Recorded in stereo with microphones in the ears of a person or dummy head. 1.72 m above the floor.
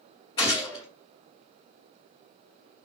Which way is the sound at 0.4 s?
25° left (ahead or behind).